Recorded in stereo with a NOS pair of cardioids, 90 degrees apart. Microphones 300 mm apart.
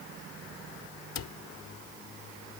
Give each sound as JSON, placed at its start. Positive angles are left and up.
{"t": 1.1, "sound": "a cupboard door", "azimuth_deg": 60}